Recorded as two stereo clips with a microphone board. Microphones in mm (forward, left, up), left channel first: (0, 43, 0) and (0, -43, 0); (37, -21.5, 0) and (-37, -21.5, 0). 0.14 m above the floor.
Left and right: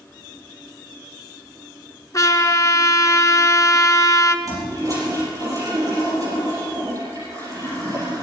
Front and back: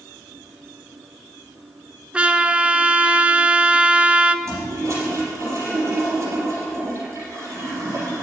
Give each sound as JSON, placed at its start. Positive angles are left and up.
{"t": 2.1, "sound": "a trumpet", "azimuth_deg": 115, "distance_m": 0.7}
{"t": 4.5, "sound": "a toilet flushing", "azimuth_deg": -135, "distance_m": 5.0}